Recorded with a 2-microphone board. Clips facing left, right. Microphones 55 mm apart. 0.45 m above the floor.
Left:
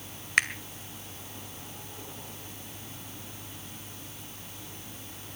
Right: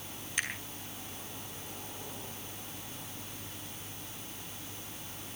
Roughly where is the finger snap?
Left.